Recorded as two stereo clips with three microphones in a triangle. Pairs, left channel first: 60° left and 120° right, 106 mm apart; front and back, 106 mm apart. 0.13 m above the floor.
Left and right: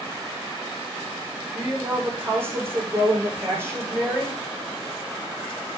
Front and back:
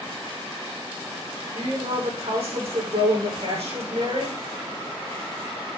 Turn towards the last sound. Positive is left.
turn(degrees=175)